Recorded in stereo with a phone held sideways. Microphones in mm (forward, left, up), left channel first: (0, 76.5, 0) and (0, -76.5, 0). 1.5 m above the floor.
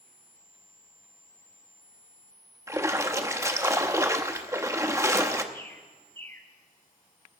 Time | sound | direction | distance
2.7 | a splash | 20° right (ahead or behind) | 0.9 m
5.5 | a bird | 15° left (ahead or behind) | 1.6 m